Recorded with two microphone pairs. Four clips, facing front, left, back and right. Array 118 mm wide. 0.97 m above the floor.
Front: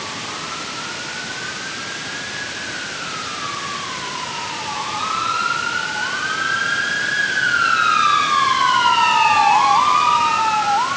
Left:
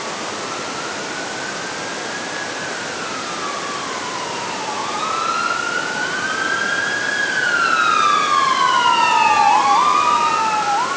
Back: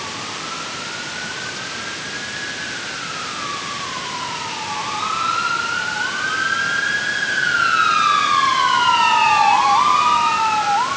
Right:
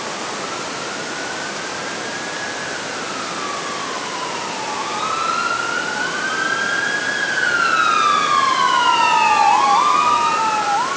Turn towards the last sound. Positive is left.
No sound to turn to.